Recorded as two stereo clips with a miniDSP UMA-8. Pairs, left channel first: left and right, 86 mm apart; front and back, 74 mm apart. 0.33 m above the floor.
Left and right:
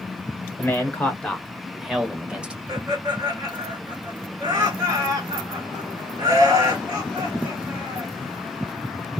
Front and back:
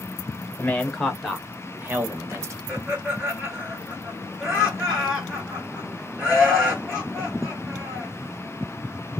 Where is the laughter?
110° right, 1.6 m.